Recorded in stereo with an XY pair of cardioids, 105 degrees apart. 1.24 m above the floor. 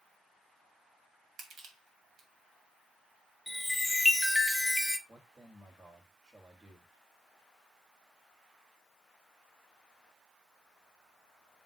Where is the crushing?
70° right, 2.5 m.